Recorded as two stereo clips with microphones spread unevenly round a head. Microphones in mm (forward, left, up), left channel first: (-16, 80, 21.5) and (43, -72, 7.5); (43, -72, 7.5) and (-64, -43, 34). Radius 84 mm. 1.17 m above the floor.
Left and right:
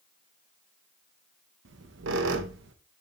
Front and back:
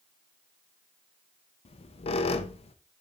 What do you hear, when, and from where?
1.6 s a squeak: 55° right, 0.6 m